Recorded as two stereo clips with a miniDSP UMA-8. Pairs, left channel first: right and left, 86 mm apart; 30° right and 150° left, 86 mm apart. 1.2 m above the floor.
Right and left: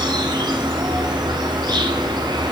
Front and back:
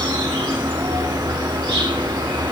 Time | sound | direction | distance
0.0 | an insect | 125° left | 5.5 m